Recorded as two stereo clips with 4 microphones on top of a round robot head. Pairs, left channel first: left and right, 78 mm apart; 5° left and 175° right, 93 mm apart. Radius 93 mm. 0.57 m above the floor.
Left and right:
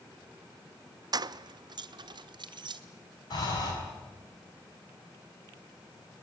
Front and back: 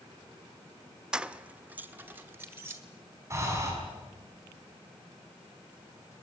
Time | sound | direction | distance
1.1 | keys jangling | 95° right | 0.5 m
3.3 | breathing | 125° left | 5.5 m